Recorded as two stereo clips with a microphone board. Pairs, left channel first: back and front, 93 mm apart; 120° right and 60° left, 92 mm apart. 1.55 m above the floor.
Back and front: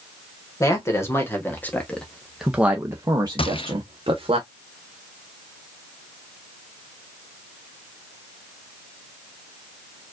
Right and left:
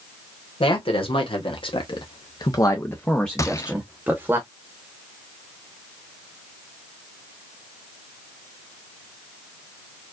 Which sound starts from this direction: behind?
A gunshot, at 3.4 s.